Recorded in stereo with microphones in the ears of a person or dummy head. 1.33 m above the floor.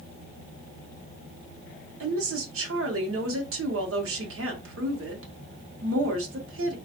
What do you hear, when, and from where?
2.0 s a woman speaking: 70° right (ahead or behind), 0.9 m